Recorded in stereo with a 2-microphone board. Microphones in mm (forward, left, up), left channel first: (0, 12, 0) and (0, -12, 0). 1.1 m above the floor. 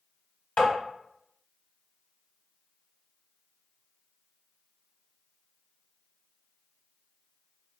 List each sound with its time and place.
0.6 s tapping: 50° left (ahead or behind), 1.1 m